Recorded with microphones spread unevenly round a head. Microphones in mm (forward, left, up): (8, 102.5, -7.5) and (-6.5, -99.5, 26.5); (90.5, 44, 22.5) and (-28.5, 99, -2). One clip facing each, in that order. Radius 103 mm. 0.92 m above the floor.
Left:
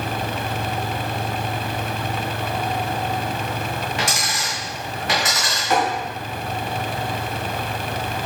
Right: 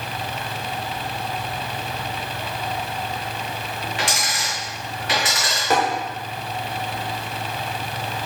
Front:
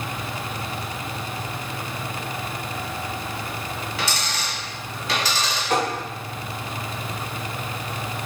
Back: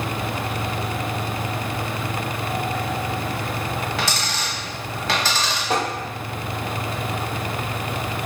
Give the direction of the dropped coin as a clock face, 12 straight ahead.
7 o'clock.